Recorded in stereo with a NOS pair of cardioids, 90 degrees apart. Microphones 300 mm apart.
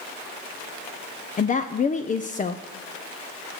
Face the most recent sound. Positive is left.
turn(degrees=25)